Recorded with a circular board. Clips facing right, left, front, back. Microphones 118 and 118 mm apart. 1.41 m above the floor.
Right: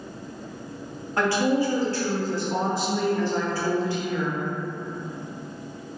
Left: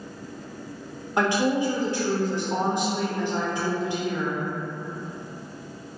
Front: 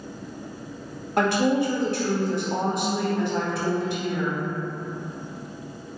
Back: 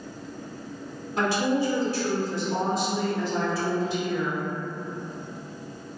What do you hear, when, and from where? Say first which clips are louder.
1.2 s a woman speaking: even, front 3 dB; 20° left, 0.7 m